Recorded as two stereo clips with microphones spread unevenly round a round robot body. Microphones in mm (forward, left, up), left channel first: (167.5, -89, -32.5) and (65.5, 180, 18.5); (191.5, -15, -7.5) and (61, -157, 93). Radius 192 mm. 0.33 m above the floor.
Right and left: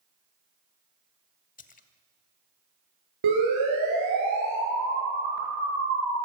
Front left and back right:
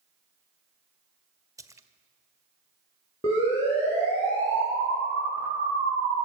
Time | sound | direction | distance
1.6 | a splash | 35° right | 1.8 m
3.2 | a siren | 120° left | 9.5 m